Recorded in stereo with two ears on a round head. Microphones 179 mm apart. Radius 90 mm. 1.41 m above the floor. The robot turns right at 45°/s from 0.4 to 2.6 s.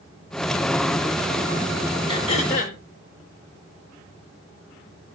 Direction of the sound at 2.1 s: 25° left (ahead or behind).